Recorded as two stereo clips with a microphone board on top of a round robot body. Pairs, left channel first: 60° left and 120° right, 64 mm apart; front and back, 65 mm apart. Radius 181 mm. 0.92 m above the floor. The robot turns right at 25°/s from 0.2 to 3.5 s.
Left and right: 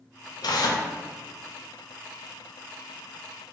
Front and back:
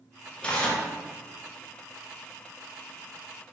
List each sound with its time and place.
0.4 s tearing paper: 70° left, 0.6 m; by 0.8 s 80° left, 0.6 m